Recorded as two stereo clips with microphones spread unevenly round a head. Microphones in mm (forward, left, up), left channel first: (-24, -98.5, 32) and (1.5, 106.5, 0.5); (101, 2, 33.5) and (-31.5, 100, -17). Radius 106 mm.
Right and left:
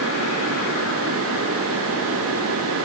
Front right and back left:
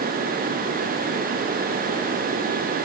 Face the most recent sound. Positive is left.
No sound to turn to.